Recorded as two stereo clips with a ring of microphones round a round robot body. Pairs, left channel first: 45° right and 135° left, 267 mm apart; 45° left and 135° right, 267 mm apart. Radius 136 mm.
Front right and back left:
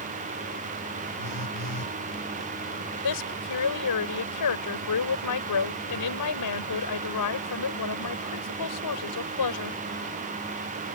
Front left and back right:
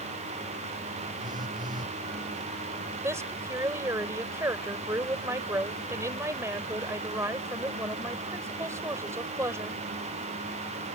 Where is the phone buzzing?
60° right.